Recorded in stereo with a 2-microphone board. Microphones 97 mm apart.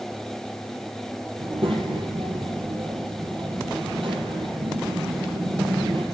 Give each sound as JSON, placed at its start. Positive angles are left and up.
{"t": 1.4, "sound": "a child speaking", "side_deg": -65, "distance_m": 3.0}